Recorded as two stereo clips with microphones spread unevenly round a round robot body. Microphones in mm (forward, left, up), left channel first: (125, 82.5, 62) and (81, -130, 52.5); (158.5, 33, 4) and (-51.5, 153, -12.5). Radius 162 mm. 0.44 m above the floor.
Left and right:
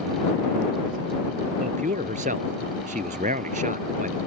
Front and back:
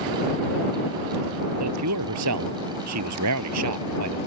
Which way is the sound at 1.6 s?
170° right.